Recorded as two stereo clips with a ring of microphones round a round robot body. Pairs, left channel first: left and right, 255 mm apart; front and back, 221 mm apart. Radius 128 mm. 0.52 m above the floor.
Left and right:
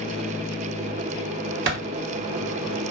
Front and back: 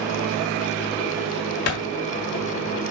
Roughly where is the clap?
Ahead right.